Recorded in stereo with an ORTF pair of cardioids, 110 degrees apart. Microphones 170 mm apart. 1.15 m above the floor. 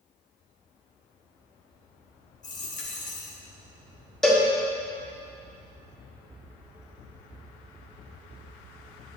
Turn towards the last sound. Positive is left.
turn(degrees=5)